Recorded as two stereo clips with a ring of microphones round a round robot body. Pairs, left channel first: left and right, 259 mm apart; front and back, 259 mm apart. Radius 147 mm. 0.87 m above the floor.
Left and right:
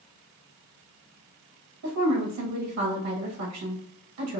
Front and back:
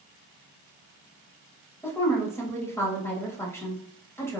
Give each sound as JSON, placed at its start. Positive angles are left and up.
{"t": 1.8, "sound": "a woman speaking", "azimuth_deg": -80, "distance_m": 1.3}